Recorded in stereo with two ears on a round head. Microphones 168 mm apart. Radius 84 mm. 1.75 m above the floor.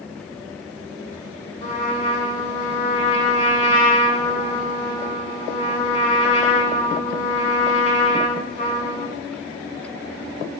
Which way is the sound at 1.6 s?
40° left (ahead or behind).